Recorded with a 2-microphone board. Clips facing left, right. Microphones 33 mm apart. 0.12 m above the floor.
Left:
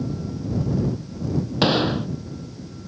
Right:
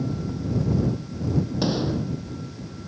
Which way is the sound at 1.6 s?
55° left (ahead or behind).